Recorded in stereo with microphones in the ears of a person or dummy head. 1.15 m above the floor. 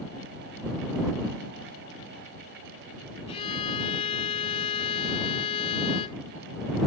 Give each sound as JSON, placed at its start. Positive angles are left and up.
{"t": 3.3, "sound": "a violin", "side_deg": 30}